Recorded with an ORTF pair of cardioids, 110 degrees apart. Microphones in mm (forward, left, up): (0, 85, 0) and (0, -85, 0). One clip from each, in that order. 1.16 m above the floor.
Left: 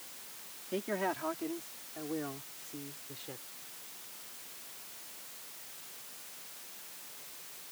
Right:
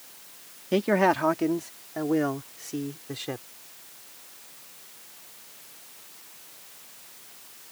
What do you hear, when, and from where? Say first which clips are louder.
0.7 s a man speaking: right 13 dB; 70° right; by 3.5 s 75° right